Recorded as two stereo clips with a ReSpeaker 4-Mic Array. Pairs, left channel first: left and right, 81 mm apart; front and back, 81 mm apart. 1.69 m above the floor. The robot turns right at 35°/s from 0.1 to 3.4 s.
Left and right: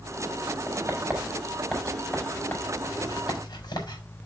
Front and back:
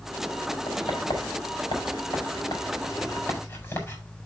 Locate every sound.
0.7 s writing: 40° right, 4 m; by 4.0 s 55° left, 4 m